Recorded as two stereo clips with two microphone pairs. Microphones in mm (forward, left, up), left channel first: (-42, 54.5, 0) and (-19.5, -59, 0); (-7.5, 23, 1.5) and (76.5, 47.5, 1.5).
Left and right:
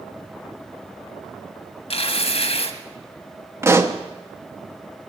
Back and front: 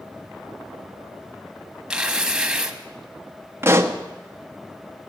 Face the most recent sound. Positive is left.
turn(degrees=-20)